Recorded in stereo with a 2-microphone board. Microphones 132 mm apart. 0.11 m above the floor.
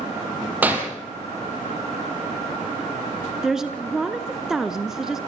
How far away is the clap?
About 3.5 m.